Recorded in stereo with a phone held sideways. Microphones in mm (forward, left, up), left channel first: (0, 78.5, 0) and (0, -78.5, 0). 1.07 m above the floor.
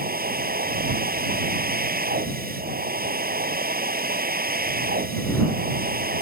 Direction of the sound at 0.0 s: 70° right (ahead or behind).